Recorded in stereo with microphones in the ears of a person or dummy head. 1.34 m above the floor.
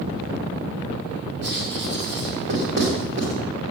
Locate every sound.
1.4 s writing: 60° right (ahead or behind), 3 m